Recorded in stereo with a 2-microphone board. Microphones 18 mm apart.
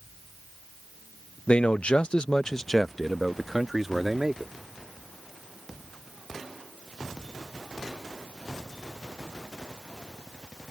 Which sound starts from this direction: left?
A man speaking, at 1.5 s.